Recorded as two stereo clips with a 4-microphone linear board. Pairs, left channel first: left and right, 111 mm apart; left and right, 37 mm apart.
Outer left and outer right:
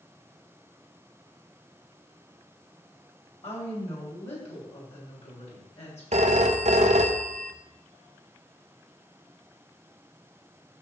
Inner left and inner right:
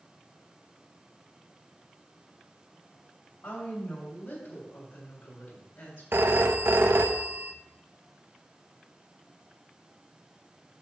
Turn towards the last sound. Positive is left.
turn(degrees=-70)  # may be behind; listen again after turning